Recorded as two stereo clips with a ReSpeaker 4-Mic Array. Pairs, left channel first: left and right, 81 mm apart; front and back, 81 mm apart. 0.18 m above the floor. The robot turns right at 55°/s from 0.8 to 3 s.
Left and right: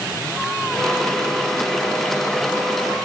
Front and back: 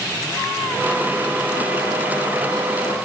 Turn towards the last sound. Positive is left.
No sound to turn to.